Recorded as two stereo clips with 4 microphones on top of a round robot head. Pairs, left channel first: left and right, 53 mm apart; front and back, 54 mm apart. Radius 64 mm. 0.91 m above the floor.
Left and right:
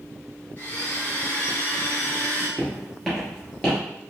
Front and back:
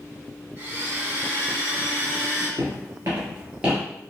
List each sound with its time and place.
0.6 s a blender: 140° left, 1.7 m
2.6 s footsteps: 175° right, 1.1 m; by 3.8 s 120° left, 0.9 m